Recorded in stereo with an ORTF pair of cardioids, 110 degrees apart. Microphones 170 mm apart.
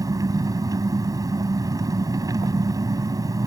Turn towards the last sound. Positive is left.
turn(degrees=-20)